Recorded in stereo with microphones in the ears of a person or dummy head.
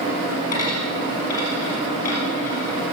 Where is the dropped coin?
20° left (ahead or behind), 4 m.